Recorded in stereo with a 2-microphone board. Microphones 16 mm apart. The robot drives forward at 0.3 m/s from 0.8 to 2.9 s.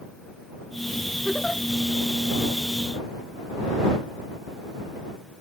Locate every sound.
1.2 s a giggle: 25° left (ahead or behind), 0.6 m; by 1.6 s 35° left (ahead or behind), 0.5 m